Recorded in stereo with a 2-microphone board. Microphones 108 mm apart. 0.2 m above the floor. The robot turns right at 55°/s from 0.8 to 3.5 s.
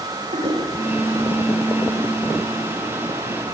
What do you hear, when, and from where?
0.3 s a toilet flushing: 60° right (ahead or behind), 4.5 m